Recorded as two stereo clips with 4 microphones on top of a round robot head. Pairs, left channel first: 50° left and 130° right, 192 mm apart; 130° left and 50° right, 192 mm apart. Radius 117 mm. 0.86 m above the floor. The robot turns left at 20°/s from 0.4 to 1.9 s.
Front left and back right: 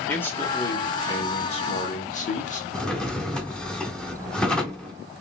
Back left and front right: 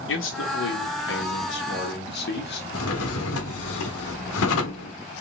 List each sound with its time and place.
0.1 s a man speaking: 130° left, 1.7 m; by 2.6 s 100° left, 1.7 m
2.7 s a drawer: 135° left, 0.9 m